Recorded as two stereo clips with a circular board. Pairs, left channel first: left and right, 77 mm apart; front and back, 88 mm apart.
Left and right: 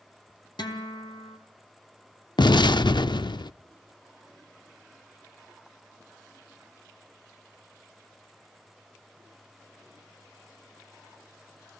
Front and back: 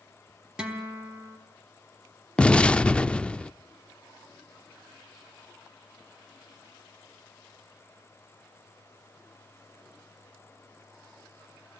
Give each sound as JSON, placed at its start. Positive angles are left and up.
{"t": 0.6, "sound": "a guitar", "azimuth_deg": 100, "distance_m": 3.5}
{"t": 2.4, "sound": "an explosion", "azimuth_deg": 75, "distance_m": 0.6}